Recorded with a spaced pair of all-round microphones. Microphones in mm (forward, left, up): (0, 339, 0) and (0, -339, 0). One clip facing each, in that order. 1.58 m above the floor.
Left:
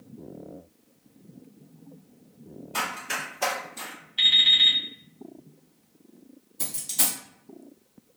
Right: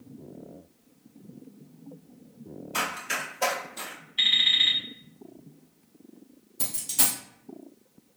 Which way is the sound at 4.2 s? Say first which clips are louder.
Left 1 dB; 20° left (ahead or behind).